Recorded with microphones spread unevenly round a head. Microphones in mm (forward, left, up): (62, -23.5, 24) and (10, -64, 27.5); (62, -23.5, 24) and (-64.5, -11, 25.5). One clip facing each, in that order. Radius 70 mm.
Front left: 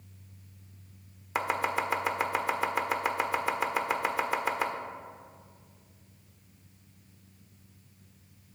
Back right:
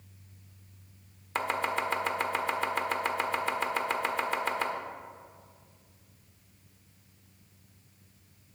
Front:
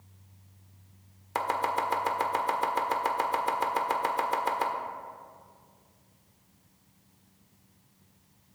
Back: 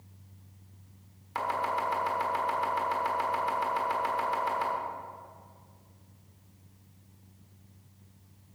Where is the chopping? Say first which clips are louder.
Front left 1 dB, front 2 dB; 45° right, 1.4 m.